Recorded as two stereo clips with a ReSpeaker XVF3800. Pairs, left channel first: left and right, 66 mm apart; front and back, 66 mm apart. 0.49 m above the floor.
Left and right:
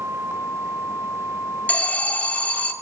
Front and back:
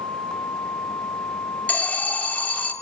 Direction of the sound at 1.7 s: 45° left.